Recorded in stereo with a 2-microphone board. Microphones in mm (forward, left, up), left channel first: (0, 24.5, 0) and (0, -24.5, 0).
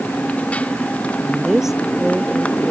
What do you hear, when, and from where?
0.0 s a motorcycle: 25° left (ahead or behind)
1.2 s a woman speaking: 5° right (ahead or behind)